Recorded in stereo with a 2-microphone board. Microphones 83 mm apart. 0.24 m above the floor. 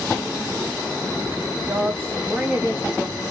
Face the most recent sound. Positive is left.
turn(degrees=-25)  # may be behind; listen again after turning